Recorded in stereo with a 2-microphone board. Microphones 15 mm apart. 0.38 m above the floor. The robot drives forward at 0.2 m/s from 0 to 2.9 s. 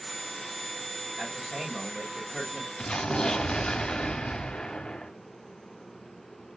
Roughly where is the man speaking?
Right.